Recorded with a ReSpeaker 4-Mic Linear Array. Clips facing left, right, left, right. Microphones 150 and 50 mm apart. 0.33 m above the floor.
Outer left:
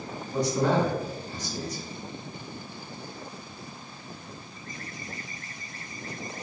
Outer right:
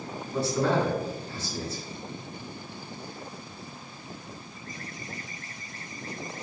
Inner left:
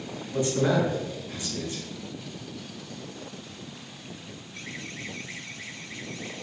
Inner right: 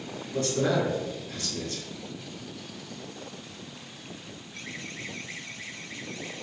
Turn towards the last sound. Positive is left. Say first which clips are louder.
# outer left 1 dB, inner left 2 dB
turn(degrees=15)  # may be behind; listen again after turning